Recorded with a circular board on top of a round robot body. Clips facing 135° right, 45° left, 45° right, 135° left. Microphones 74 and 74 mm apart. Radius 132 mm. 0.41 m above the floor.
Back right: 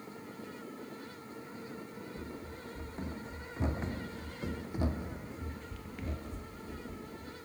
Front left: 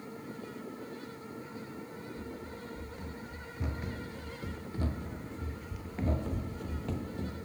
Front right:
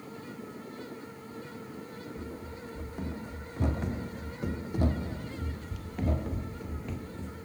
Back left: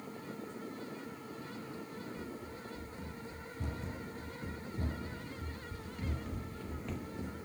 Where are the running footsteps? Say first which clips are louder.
Front left 2 dB, front right 3 dB; 80° right, 2.5 m; by 7.5 s 60° left, 0.9 m.